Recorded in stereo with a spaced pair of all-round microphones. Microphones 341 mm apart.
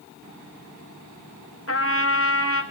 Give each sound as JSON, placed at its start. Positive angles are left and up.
{"t": 1.7, "sound": "a trumpet", "side_deg": 45, "distance_m": 1.2}